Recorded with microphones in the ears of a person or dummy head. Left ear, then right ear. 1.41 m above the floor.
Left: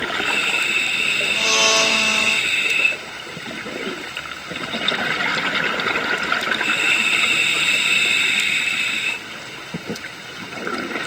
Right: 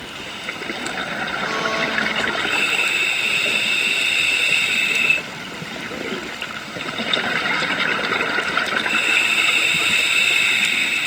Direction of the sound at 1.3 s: 65° left (ahead or behind).